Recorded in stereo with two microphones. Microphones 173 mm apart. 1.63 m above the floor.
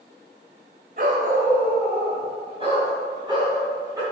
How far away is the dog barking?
About 2.0 m.